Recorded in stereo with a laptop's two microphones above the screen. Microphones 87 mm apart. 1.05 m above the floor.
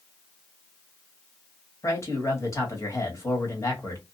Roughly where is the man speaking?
Left.